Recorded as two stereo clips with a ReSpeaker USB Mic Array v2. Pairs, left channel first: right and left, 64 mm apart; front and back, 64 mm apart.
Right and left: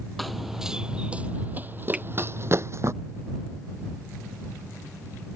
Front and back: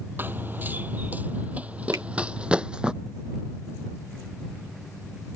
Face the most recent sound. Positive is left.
turn(degrees=160)